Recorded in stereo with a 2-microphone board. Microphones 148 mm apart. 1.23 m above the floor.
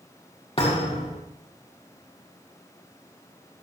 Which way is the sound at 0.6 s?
45° left (ahead or behind).